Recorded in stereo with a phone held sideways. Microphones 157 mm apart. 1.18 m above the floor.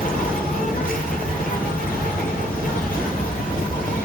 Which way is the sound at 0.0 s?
65° left (ahead or behind).